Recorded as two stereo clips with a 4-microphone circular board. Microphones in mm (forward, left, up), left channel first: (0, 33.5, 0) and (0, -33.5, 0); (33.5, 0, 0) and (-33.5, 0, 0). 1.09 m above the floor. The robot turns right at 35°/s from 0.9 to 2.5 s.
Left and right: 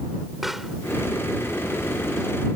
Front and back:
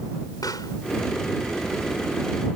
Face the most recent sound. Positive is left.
turn(degrees=50)